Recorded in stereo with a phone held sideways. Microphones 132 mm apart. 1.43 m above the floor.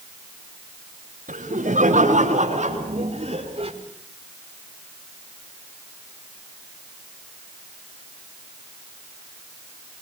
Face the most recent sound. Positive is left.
turn(degrees=-45)  # may be behind; listen again after turning